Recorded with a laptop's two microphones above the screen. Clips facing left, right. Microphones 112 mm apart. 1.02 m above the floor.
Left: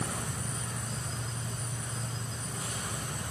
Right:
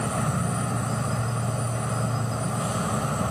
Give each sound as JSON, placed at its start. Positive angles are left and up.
{"t": 0.0, "sound": "an insect", "side_deg": -80}